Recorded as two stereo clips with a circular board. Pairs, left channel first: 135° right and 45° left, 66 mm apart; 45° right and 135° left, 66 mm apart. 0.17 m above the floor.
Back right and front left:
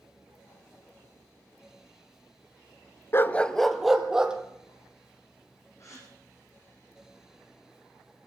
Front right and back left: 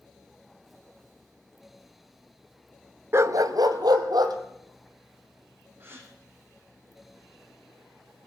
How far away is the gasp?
About 4.5 m.